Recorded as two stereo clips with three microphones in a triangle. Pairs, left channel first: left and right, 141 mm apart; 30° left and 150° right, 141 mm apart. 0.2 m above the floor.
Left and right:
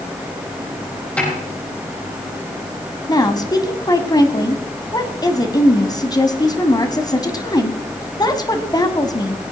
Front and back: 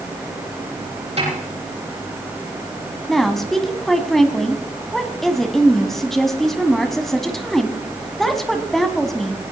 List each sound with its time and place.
1.2 s a snare drum: 170° left, 7.5 m
3.1 s a woman speaking: 115° left, 1.5 m